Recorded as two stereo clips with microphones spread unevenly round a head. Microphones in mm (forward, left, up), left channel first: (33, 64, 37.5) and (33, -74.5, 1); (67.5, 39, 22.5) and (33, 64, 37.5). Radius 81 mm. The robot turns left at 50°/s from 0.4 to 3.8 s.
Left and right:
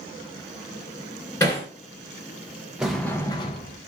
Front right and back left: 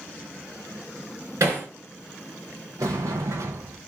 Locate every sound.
1.4 s hammering: 165° left, 2.0 m; by 1.7 s 150° left, 2.0 m
2.8 s a sliding door: 175° right, 0.5 m; by 3.8 s 135° left, 0.5 m